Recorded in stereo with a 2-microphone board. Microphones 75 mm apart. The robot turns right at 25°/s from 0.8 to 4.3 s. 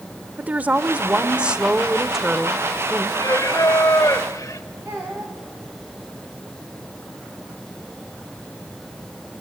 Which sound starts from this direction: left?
Singing, at 3.1 s.